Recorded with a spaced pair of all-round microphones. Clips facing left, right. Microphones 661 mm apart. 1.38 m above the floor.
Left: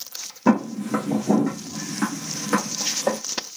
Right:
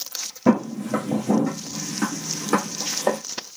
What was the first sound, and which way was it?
Footsteps, 15° right (ahead or behind).